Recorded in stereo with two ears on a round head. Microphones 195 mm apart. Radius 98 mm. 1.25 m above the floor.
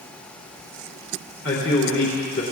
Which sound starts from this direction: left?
A man speaking, at 1.4 s.